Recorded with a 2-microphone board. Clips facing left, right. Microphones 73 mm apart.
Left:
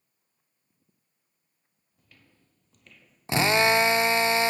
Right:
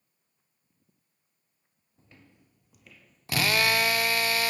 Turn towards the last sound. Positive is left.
turn(degrees=25)  # may be behind; listen again after turning